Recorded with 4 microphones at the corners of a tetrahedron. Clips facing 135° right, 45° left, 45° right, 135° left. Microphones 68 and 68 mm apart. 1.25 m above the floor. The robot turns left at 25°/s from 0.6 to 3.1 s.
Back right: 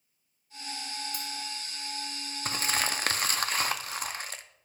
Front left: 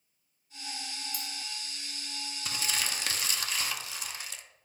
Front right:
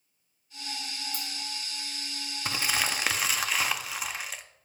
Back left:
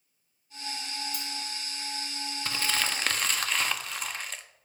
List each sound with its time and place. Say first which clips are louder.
1.1 s cutlery clinking: back right 3 dB, even; 95° right, 1.4 m; by 1.3 s 100° right, 1.4 m
2.5 s crumpling: back right 5 dB, front right 1 dB; 110° right, 0.5 m; by 4.4 s 125° right, 0.5 m